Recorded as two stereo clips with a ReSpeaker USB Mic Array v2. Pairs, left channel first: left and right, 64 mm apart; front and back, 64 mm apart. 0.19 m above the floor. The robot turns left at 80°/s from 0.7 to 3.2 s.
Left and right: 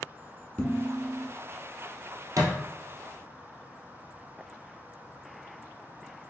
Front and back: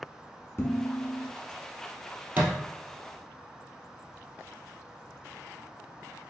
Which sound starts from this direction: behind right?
A thud, at 2.4 s.